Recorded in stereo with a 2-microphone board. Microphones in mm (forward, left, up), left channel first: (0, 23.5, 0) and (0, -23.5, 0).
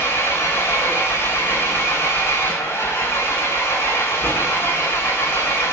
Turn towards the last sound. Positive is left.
turn(degrees=65)  # may be behind; listen again after turning